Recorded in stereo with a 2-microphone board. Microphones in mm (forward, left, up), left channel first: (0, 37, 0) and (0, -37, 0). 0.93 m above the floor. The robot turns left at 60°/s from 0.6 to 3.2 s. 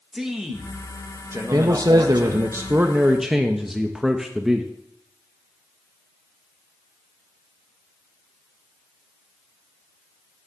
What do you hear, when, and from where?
0.1 s a man speaking: 10° right, 1.3 m; by 2.5 s 125° right, 1.3 m
1.5 s a man speaking: 75° right, 0.7 m; by 4.7 s 175° right, 0.7 m